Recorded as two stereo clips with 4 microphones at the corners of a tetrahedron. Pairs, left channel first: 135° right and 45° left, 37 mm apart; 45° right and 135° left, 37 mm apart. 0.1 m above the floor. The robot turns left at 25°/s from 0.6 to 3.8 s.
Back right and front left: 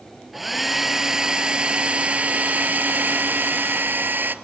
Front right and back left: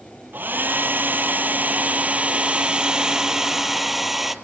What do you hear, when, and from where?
0.3 s a hair dryer: 130° left, 1.0 m; by 4.3 s 50° left, 1.0 m